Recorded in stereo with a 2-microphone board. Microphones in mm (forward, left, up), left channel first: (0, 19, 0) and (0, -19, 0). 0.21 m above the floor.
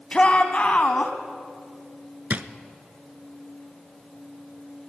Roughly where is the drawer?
Right.